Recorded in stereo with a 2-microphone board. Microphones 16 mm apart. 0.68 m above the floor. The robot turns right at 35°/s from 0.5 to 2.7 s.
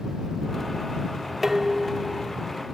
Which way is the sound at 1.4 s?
25° right.